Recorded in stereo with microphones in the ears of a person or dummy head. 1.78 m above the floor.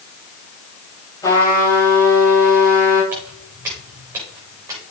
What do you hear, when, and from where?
1.2 s a trumpet: 20° left (ahead or behind), 5 m
3.1 s footsteps: 15° right (ahead or behind), 7 m; by 4.8 s 20° right (ahead or behind), 7.5 m